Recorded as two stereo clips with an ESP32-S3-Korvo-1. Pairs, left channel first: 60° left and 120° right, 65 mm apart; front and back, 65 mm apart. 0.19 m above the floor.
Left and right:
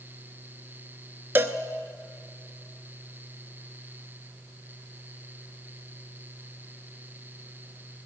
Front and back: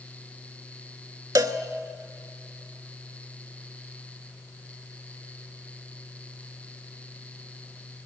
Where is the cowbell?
Straight behind, 0.8 m.